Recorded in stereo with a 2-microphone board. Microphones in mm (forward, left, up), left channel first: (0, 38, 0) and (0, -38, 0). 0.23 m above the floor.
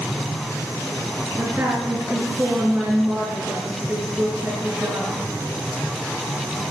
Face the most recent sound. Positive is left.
turn(degrees=-25)  # may be behind; listen again after turning